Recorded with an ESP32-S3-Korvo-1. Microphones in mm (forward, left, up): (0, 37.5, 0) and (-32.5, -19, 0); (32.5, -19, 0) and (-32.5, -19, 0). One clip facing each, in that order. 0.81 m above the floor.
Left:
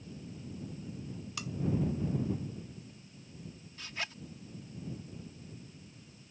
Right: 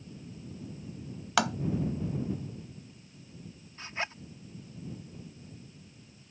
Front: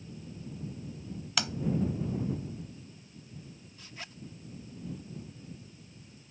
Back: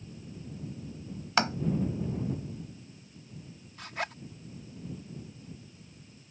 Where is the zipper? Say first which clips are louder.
Right 5 dB, back 13 dB; straight behind.